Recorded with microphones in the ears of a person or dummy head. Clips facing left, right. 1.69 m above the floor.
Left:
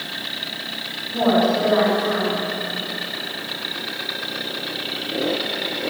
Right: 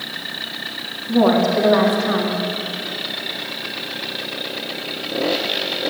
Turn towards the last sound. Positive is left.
turn(degrees=-70)  # may be behind; listen again after turning